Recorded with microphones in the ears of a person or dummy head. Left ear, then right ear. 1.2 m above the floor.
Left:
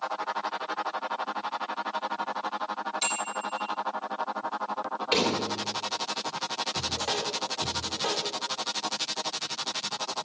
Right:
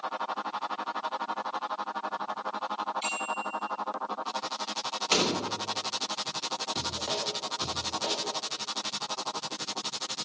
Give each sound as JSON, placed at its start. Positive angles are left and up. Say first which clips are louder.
{"t": 3.0, "sound": "a bicycle bell", "louder": "left 1 dB", "side_deg": 30, "distance_m": 7.0}
{"t": 5.1, "sound": "a door slam", "louder": "left 1 dB", "side_deg": -45, "distance_m": 3.0}
{"t": 6.8, "sound": "a man speaking", "louder": "left 2 dB", "side_deg": 5, "distance_m": 0.8}